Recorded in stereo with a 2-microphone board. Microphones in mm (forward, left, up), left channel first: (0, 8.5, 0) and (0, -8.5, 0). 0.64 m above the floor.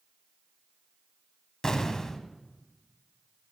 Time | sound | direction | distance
1.6 | an explosion | 35° left (ahead or behind) | 1.0 m